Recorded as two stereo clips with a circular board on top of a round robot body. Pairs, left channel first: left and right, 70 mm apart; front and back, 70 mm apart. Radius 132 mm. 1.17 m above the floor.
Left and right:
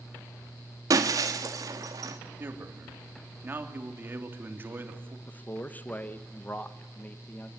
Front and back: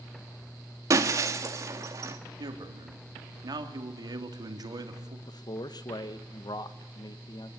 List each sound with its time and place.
0.9 s breaking glass: 130° right, 1.6 m
2.4 s a man speaking: 150° right, 2.5 m
5.3 s a man speaking: 25° left, 1.3 m